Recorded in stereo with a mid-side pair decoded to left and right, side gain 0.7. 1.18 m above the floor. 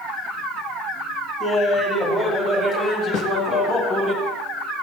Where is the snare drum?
65° left, 2 m.